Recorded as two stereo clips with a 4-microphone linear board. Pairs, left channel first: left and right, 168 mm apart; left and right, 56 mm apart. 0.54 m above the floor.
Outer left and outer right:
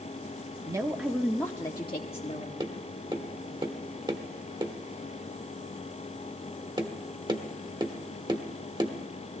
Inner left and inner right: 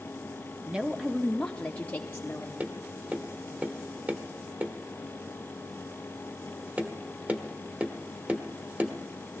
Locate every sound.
0.7 s a woman speaking: 20° right (ahead or behind), 0.9 m; by 2.5 s 45° left (ahead or behind), 1.3 m
2.6 s tapping: 25° right (ahead or behind), 1.1 m